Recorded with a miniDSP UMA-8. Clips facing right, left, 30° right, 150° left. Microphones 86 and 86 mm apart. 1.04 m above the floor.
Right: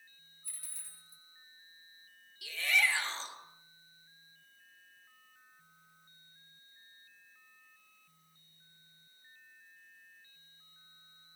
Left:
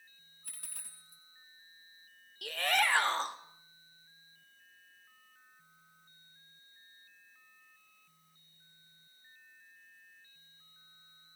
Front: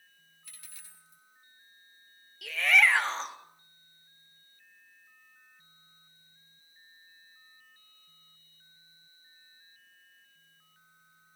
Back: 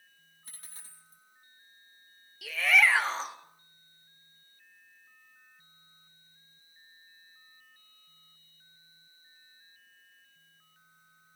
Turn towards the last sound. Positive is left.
turn(degrees=65)